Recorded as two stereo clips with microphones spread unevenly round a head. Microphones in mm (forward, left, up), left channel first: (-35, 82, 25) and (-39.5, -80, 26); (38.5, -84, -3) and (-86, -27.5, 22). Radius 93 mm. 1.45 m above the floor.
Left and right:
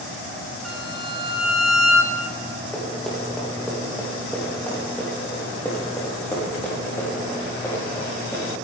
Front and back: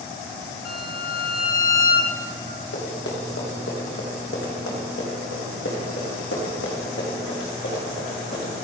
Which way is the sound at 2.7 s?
Straight ahead.